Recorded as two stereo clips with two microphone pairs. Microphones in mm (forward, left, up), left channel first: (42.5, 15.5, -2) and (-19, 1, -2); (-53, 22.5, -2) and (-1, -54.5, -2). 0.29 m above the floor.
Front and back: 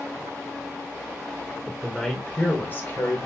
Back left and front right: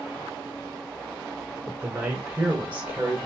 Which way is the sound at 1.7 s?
90° right.